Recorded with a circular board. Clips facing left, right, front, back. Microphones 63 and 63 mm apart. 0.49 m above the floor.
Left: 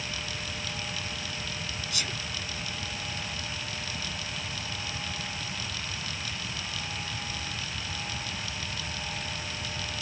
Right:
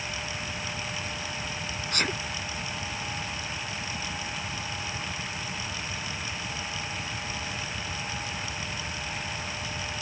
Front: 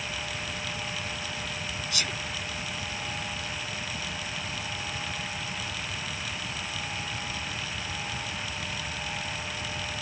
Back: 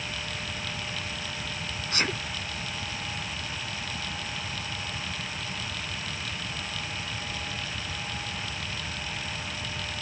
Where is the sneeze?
130° right.